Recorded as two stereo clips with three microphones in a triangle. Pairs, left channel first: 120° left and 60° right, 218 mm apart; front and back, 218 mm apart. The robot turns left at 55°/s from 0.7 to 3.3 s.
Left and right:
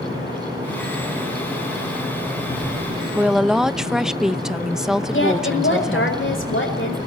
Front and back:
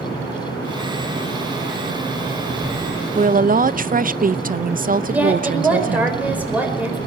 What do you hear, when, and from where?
3.1 s a woman speaking: 140° right, 0.6 m; by 6.1 s 145° right, 0.6 m
5.1 s a woman speaking: 95° left, 4.5 m